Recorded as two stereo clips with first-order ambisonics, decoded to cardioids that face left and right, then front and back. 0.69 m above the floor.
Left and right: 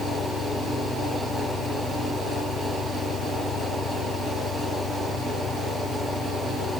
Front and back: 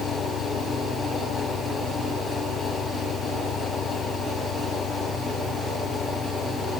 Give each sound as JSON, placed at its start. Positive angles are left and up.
{"t": 0.0, "sound": "an engine running", "azimuth_deg": 45}